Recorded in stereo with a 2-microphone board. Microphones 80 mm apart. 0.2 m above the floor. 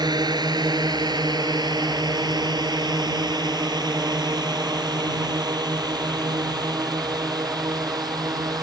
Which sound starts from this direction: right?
A drone, at 0.0 s.